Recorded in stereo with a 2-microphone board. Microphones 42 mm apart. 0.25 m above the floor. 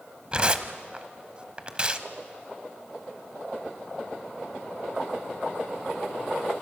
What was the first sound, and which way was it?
Tearing paper, 25° right (ahead or behind).